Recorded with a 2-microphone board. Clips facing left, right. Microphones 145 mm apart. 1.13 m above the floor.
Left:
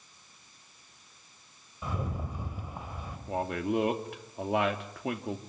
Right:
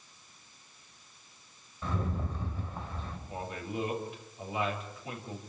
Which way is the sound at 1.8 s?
10° left (ahead or behind).